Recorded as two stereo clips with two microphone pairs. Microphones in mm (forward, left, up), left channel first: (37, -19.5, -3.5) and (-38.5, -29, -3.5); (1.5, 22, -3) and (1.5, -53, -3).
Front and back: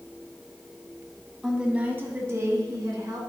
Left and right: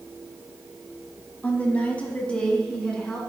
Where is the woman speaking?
110° left, 1.1 m; by 3.2 s 170° left, 1.8 m.